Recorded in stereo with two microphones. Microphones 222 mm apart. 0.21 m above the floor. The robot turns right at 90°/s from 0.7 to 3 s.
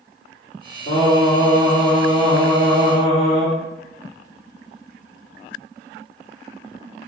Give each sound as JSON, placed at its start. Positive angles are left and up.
{"t": 0.9, "sound": "singing", "azimuth_deg": 95, "distance_m": 1.9}